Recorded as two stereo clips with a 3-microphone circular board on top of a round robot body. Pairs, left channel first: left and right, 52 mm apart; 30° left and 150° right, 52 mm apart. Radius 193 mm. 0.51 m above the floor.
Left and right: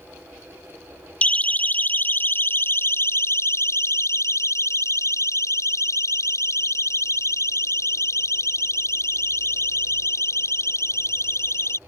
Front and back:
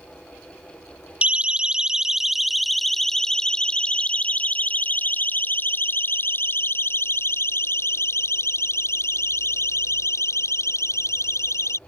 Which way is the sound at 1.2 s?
150° left.